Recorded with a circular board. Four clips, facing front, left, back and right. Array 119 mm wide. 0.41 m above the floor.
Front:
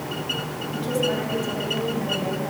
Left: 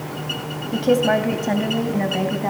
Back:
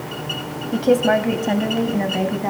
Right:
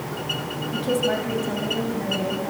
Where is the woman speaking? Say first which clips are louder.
Left 6 dB, back 9 dB; 150° left, 2 m; by 2.5 s 130° left, 3 m.